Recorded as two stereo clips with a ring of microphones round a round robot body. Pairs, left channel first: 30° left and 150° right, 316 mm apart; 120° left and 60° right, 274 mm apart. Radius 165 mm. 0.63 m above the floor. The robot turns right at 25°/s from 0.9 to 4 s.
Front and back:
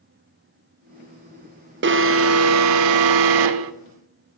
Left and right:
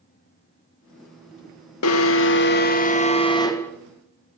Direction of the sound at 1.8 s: 155° left.